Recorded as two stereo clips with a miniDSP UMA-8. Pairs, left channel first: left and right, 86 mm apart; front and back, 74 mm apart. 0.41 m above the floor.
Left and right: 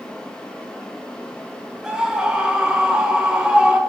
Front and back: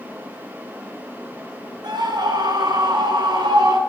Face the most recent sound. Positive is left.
turn(degrees=-170)